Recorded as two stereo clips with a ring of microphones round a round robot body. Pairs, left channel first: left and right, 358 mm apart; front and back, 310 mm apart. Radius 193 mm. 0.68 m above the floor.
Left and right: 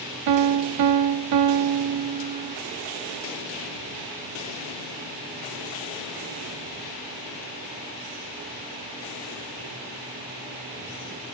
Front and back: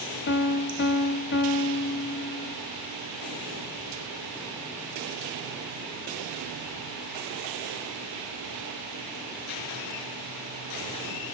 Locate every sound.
0.3 s a piano: 55° right, 0.8 m